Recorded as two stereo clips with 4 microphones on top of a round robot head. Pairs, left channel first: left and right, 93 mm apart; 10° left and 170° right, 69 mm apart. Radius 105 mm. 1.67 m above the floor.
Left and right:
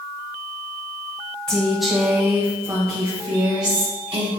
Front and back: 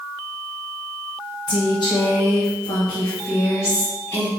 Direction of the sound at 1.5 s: 10° left.